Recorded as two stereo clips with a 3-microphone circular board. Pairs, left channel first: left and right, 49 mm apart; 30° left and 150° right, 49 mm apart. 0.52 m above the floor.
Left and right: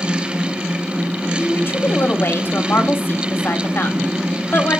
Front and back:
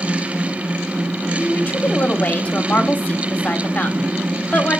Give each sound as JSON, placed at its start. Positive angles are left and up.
{"t": 1.4, "sound": "a woman speaking", "azimuth_deg": 80, "distance_m": 1.3}